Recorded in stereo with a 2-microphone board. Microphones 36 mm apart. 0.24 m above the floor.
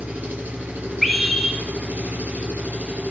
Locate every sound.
0.0 s an engine running: 65° right (ahead or behind), 2.5 m
1.0 s a scream: centre (ahead or behind), 0.9 m